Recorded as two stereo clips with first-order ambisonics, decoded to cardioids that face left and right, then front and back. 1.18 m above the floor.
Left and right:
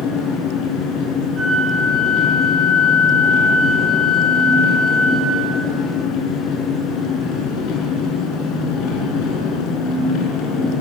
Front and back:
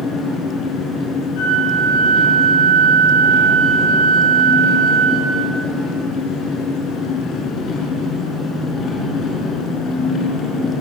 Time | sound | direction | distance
0.0 | an engine running | 55° left | 5 m
1.3 | a flute | 15° right | 8 m